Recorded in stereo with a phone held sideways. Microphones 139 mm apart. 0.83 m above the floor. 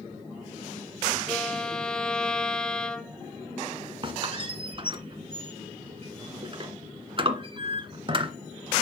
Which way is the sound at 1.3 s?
5° left (ahead or behind).